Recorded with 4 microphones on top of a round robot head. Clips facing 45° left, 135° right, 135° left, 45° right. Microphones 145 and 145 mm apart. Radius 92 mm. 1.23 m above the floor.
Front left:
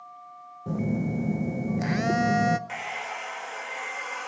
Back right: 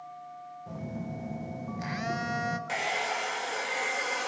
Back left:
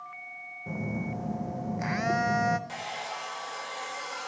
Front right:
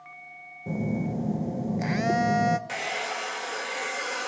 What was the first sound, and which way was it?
A phone buzzing, 10° left.